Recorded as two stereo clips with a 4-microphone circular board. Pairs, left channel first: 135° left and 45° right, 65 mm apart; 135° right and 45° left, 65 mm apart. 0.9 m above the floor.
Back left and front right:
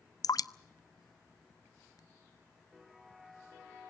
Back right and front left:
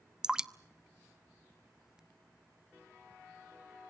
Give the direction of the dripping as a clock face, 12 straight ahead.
8 o'clock.